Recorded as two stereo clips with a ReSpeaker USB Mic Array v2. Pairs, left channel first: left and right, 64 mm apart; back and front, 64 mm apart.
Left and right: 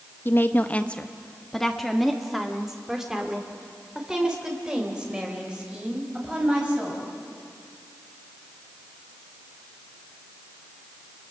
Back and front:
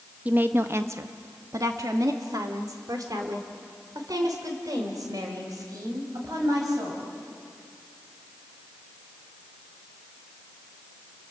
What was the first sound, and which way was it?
A woman speaking, 55° left.